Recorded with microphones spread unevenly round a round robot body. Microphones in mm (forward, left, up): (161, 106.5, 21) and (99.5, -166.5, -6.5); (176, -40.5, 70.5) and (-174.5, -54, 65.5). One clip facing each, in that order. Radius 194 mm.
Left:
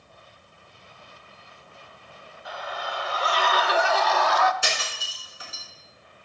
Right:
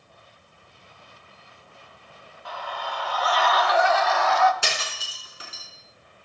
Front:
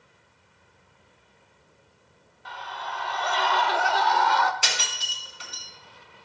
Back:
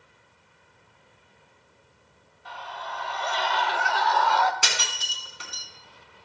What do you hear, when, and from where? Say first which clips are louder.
2.5 s a scream: even, even; 5° left, 2.0 m; by 4.5 s 65° left, 0.9 m
4.6 s breaking glass: even, back 1 dB; 145° right, 4 m